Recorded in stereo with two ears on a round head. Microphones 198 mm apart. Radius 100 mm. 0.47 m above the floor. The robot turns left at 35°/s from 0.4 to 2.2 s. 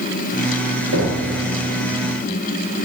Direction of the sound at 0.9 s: 45° right (ahead or behind).